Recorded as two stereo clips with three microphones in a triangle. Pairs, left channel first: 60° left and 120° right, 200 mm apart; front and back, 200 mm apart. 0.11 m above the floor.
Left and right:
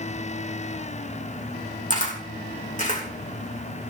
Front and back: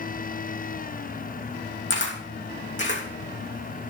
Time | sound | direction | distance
1.9 | a camera shutter | 10° left | 3 m